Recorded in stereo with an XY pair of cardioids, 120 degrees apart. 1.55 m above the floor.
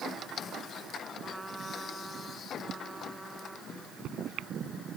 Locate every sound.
1.2 s a trumpet: 15° right
3.7 s a microwave: 70° right